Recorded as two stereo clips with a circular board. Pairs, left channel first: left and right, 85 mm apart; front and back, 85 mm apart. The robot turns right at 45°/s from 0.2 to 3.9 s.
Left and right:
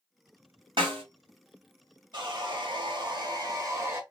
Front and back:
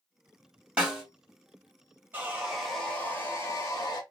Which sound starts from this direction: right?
A snare drum, at 0.8 s.